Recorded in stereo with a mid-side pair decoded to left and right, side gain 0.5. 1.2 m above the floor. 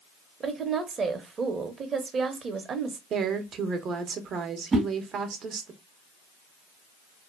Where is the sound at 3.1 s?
55° right, 0.8 m.